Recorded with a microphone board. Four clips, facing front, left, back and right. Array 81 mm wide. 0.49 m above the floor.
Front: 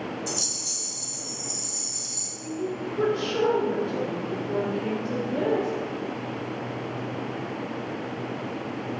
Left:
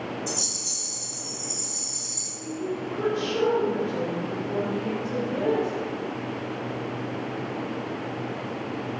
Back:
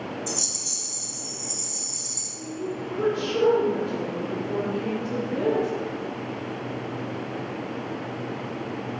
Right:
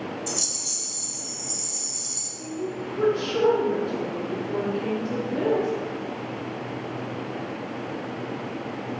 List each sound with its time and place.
0.3 s a rattle: 50° right, 1.4 m
2.4 s a woman speaking: 5° right, 1.8 m